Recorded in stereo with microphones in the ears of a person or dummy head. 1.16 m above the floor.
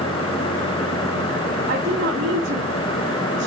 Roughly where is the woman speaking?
Right.